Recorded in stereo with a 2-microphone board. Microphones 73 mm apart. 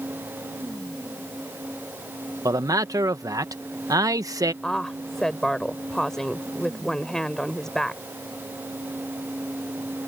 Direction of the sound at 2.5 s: 55° right (ahead or behind).